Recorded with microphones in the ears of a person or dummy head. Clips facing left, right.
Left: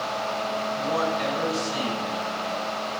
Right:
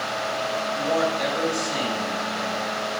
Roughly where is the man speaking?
Right.